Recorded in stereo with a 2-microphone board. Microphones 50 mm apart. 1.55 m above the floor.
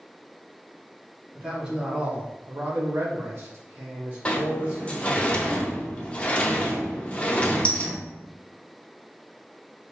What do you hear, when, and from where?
1.4 s a man speaking: 15° right (ahead or behind), 1.2 m; by 5.2 s 35° right (ahead or behind), 1.3 m
4.2 s a sliding door: 20° left (ahead or behind), 0.5 m